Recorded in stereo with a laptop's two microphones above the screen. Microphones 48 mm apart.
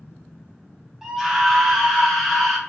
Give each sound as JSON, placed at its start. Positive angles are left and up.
{"t": 1.0, "sound": "a scream", "side_deg": -10, "distance_m": 0.8}